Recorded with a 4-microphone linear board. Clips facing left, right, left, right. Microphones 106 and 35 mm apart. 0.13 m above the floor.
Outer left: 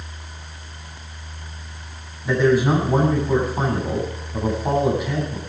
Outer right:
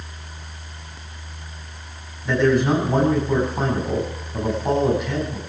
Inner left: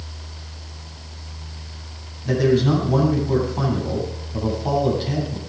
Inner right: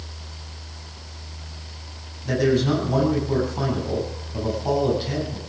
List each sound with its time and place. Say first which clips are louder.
2.2 s a man speaking: outer left 1 dB, inner left 2 dB; 5° left (ahead or behind), 8 m